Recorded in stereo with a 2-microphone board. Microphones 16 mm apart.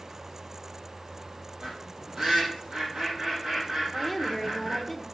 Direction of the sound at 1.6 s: 40° right (ahead or behind).